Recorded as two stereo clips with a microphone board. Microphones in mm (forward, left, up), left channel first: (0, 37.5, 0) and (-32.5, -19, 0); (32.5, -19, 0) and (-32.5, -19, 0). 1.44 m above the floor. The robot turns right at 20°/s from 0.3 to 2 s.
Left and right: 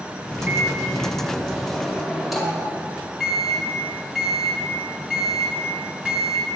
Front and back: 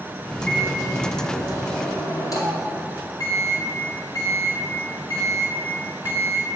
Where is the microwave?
60° right, 2.5 m; by 6.5 s 30° right, 2.5 m.